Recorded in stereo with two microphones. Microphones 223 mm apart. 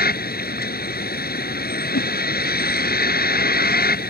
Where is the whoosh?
75° left (ahead or behind).